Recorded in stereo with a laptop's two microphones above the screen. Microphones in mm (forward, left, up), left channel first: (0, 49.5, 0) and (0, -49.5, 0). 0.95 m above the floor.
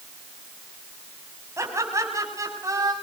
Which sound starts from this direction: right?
Laughter, at 1.6 s.